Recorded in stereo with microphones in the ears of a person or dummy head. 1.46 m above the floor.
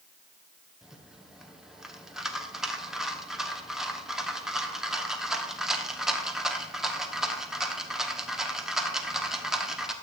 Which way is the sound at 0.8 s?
Centre (ahead or behind).